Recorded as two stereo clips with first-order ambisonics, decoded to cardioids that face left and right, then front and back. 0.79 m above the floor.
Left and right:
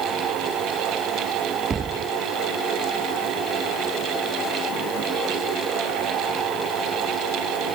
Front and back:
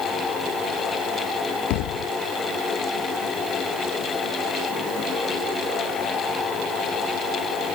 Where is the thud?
20° right.